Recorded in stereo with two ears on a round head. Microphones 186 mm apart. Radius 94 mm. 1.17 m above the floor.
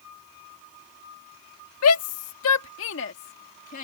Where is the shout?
85° left; by 3.8 s 35° left (ahead or behind).